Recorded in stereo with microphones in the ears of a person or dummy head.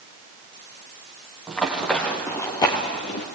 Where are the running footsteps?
5° right (ahead or behind), 2.5 m; by 3.2 s 35° left (ahead or behind), 1.8 m.